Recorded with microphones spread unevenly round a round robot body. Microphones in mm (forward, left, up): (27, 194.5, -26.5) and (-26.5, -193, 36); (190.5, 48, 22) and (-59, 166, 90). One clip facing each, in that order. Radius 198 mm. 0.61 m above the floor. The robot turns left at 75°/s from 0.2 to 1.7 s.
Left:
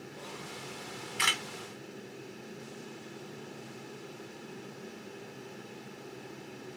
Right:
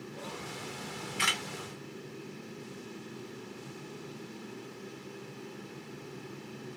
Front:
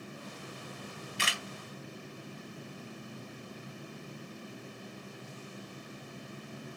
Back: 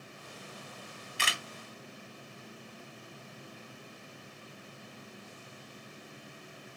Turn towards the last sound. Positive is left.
turn(degrees=125)